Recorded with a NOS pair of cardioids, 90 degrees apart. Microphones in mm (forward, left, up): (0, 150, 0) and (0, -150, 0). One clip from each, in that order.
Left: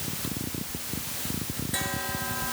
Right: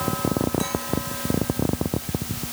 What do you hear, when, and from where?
Only background noise.